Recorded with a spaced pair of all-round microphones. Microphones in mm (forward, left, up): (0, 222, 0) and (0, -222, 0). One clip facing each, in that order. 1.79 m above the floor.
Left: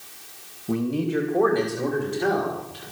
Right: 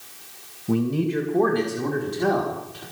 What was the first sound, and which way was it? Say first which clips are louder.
A man speaking: right 2 dB; 25° right (ahead or behind).